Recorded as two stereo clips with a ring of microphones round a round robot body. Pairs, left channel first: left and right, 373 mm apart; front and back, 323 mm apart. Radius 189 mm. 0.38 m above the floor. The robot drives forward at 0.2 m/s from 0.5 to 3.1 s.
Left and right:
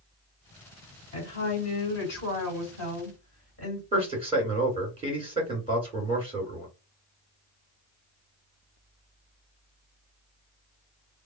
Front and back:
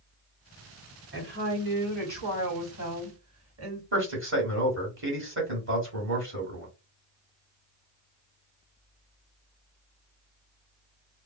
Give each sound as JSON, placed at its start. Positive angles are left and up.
{"t": 1.1, "sound": "a woman speaking", "azimuth_deg": 135, "distance_m": 2.0}
{"t": 3.9, "sound": "a man speaking", "azimuth_deg": -160, "distance_m": 1.7}